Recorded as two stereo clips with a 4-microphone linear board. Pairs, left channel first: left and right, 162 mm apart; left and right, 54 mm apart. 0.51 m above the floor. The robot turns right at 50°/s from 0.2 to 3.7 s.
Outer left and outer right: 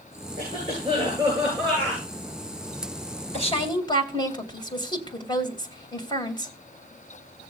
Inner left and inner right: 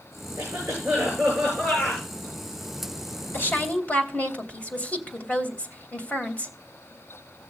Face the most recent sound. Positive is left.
turn(degrees=25)  # may be behind; listen again after turning